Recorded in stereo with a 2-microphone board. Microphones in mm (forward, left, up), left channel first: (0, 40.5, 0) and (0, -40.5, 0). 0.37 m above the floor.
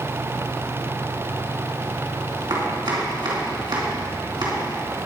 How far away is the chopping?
About 3.5 m.